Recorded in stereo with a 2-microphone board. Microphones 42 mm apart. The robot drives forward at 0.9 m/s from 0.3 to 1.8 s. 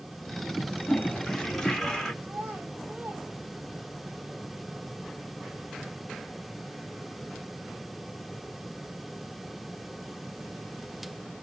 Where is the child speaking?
50° right (ahead or behind), 3.5 m.